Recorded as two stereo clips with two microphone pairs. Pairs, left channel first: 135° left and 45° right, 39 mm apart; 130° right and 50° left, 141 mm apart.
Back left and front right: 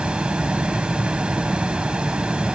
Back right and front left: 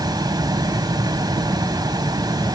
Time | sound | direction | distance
0.0 | running water | 5° left | 1.4 m